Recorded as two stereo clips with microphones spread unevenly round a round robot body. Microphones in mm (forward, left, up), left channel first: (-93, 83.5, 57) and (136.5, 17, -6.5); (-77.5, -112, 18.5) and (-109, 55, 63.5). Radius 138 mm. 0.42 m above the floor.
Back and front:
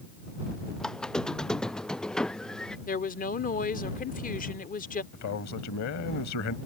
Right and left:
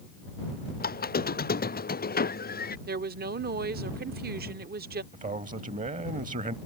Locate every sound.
0.8 s a squeak: 110° right
2.9 s a woman speaking: 105° left
5.1 s a man speaking: 145° left